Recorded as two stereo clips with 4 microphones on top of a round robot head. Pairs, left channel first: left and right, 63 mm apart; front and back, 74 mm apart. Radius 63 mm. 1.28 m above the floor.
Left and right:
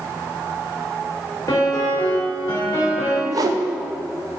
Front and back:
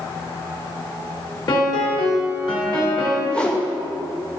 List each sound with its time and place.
1.5 s a piano: 25° left, 2 m
3.3 s a whoosh: 80° right, 0.6 m